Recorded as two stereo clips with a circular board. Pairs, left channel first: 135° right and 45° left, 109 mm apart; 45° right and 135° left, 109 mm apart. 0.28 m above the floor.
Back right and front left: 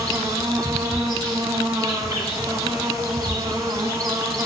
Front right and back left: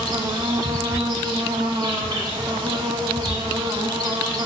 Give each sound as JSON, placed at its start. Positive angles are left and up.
{"t": 0.0, "sound": "an insect", "azimuth_deg": 100, "distance_m": 0.8}